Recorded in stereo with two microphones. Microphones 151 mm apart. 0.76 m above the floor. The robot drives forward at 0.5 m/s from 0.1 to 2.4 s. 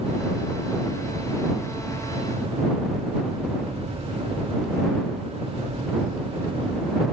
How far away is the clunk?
No clunk in this recording.